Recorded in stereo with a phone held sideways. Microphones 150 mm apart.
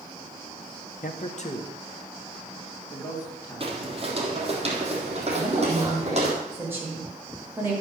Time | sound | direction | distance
1.0 | a man speaking | 65° left (ahead or behind) | 1.1 m
3.6 | footsteps | 35° right (ahead or behind) | 2.5 m
5.3 | a woman speaking | 15° right (ahead or behind) | 5 m